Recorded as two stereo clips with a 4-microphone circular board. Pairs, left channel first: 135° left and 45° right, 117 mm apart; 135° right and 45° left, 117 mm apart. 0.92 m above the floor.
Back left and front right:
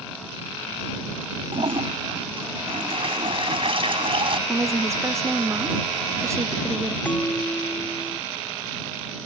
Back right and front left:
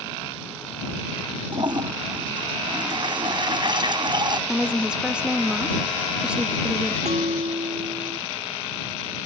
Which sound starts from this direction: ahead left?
A bell, at 7.0 s.